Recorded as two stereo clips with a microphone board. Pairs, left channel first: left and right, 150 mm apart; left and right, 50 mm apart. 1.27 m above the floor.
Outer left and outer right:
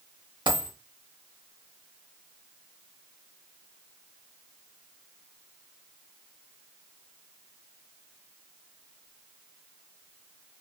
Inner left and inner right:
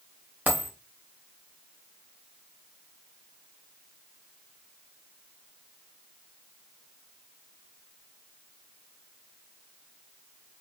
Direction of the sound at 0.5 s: 30° right (ahead or behind).